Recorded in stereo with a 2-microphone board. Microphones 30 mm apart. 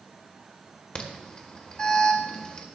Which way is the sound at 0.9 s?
35° left (ahead or behind).